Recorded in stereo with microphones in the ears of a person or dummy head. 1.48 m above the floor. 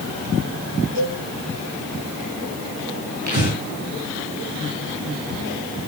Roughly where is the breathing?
Right.